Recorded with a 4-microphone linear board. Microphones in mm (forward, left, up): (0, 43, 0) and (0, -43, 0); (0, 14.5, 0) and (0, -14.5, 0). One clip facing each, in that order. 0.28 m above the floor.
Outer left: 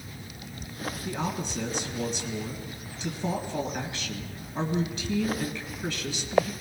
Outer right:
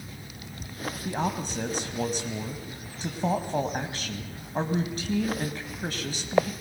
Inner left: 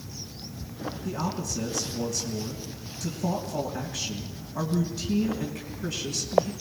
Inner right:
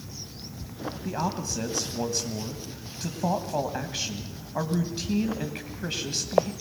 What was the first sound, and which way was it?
A man speaking, 45° right (ahead or behind).